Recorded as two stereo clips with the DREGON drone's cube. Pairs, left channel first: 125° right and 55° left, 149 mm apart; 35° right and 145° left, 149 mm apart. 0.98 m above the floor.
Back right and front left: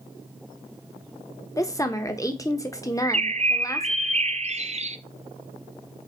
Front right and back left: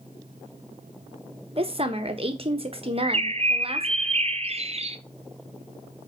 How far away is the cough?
No cough in this recording.